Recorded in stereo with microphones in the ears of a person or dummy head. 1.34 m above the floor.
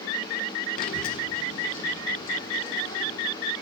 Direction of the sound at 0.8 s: 50° left (ahead or behind).